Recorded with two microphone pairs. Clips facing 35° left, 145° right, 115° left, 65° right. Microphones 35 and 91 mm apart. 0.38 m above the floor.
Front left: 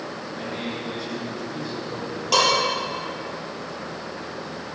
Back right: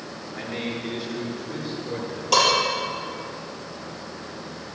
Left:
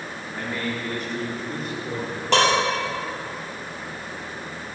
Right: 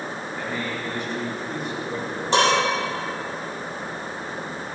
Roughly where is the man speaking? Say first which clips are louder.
Back right 2 dB, left 2 dB; behind left.